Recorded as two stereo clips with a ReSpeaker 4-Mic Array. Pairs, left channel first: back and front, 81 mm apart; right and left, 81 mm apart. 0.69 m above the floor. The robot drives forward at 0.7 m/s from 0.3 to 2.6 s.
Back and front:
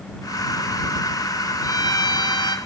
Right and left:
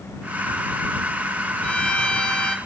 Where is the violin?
165° right, 1.7 m; by 2.6 s 170° right, 2.5 m.